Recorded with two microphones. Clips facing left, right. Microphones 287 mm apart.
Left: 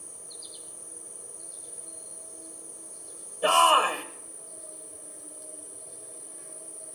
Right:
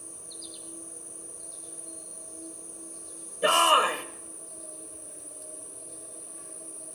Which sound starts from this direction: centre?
An insect, at 0.0 s.